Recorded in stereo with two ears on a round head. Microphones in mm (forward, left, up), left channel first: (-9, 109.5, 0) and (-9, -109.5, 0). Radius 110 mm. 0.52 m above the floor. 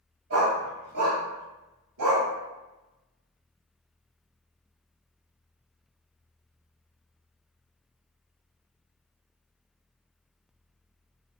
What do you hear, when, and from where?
0.3 s a dog barking: 60° right (ahead or behind), 1.5 m; by 2.3 s 75° right (ahead or behind), 1.6 m